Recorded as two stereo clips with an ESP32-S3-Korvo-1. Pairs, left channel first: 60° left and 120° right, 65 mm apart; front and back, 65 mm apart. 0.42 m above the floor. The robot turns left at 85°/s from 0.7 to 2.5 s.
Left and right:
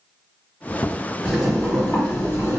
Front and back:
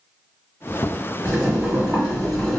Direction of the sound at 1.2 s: 155° left.